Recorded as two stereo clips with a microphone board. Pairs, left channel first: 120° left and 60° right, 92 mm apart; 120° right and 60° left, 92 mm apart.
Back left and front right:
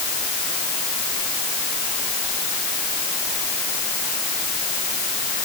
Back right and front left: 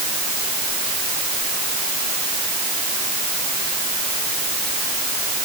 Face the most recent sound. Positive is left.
No sound to turn to.